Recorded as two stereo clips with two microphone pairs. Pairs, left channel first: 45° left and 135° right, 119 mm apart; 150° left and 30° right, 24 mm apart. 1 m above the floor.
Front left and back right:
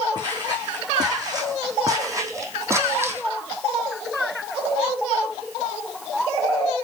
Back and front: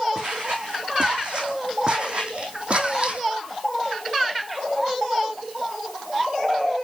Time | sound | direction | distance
0.1 | footsteps | 80° right | 4.5 m